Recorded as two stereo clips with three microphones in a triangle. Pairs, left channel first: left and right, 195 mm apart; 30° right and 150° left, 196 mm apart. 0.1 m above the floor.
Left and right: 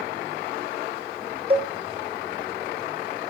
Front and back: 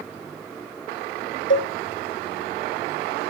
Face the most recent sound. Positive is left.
turn(degrees=-30)